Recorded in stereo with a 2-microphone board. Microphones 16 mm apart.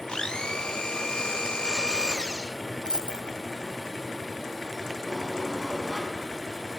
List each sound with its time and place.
0.1 s a blender: 50° left (ahead or behind), 0.8 m
2.9 s a dropped coin: 65° right (ahead or behind), 1.5 m
5.1 s a sliding door: 20° right (ahead or behind), 4.5 m